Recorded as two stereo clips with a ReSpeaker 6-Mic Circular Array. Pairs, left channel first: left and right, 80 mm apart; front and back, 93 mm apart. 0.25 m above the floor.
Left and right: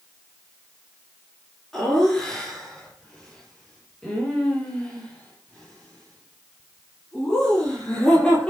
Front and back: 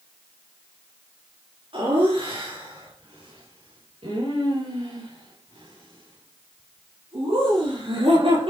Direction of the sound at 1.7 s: 175° left.